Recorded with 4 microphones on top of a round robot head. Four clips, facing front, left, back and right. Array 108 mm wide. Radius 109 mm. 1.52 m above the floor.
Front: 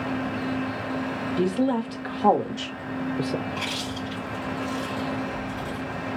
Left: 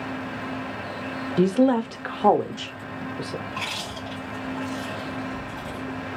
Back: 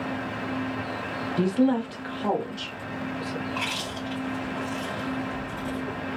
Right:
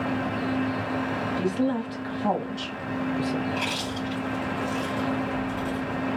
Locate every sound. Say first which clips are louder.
1.4 s a woman speaking: left 9 dB, back 1 dB; 95° left, 0.9 m; by 3.4 s 10° left, 0.7 m
3.5 s chewing: right 4 dB, front 1 dB; 145° left, 1.5 m